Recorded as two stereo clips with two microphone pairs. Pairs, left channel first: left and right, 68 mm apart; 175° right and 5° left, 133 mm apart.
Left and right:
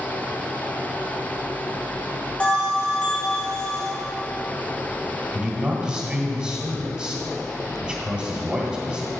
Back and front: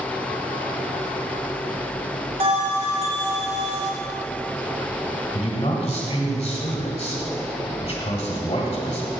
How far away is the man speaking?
About 1.4 m.